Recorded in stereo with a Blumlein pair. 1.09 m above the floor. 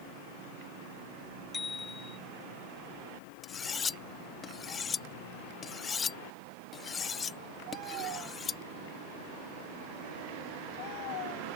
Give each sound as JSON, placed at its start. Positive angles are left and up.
{"t": 1.5, "sound": "a bicycle bell", "azimuth_deg": 10}
{"t": 3.4, "sound": "cutlery clinking", "azimuth_deg": 20}